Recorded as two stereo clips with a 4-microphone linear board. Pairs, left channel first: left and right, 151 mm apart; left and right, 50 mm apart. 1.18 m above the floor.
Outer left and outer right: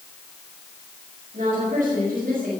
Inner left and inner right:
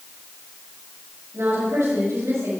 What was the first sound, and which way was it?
A woman speaking, 65° right (ahead or behind).